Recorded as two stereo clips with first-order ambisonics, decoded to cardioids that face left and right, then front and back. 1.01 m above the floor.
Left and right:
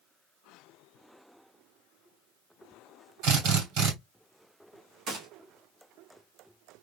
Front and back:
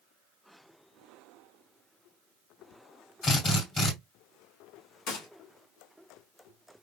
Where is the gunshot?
40° right, 1.7 m.